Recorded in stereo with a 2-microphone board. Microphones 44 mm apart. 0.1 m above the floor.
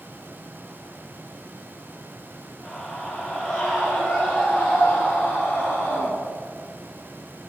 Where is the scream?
30° left (ahead or behind), 4 m; by 6.1 s 60° left (ahead or behind), 3.5 m.